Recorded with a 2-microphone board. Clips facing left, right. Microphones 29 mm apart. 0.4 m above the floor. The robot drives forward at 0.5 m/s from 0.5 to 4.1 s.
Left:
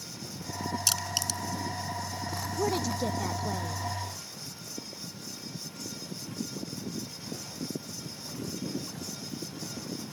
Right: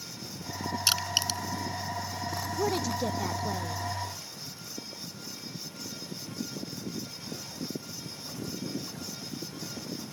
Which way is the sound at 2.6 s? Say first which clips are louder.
Even; 5° right (ahead or behind).